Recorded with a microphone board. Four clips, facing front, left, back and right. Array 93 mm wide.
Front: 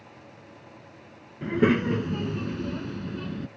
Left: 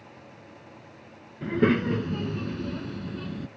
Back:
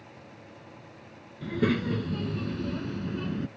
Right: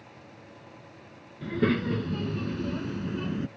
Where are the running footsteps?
No running footsteps in this recording.